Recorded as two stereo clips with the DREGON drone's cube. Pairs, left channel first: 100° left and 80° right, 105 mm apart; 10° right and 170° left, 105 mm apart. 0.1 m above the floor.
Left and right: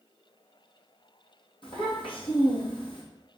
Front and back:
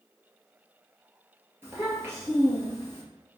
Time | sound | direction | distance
1.6 | a child speaking | 110° left | 1.6 m